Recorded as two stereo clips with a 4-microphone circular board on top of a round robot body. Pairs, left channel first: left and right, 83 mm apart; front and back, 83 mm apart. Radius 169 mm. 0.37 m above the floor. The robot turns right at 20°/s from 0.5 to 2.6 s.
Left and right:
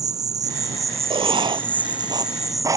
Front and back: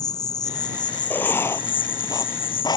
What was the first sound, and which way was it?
An insect, 45° right.